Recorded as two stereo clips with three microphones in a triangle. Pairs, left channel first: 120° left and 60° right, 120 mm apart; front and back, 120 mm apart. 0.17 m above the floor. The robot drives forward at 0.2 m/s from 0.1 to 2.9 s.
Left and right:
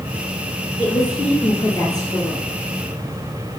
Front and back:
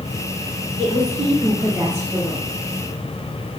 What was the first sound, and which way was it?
A woman speaking, 170° left.